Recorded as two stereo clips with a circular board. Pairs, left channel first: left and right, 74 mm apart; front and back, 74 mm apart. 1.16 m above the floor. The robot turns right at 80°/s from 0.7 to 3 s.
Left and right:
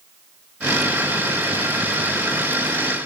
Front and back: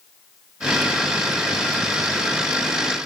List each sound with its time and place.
Only background noise.